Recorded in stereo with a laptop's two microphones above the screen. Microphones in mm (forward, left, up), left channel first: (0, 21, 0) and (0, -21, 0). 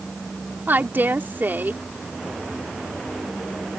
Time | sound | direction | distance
0.7 | a woman speaking | 50° right (ahead or behind) | ?